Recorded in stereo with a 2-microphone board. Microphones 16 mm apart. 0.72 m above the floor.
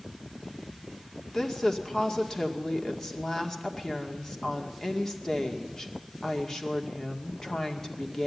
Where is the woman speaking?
30° left (ahead or behind), 2 m.